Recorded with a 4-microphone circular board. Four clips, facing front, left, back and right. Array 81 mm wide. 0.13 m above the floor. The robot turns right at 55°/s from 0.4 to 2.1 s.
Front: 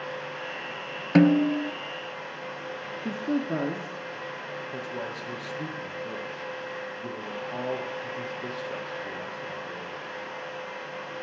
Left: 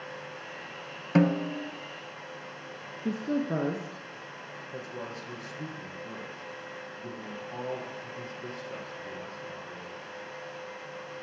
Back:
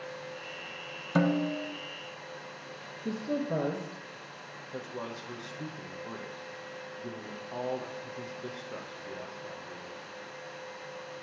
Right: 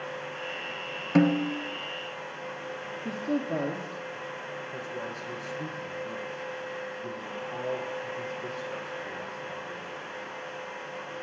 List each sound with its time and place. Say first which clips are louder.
1.1 s a snare drum: right 2 dB, front 8 dB; 5° right, 0.7 m; by 1.7 s 30° left, 0.7 m
3.0 s a woman speaking: left 1 dB, front 3 dB; 45° left, 1.4 m
4.7 s a man speaking: left 1 dB, front 1 dB; straight ahead, 4 m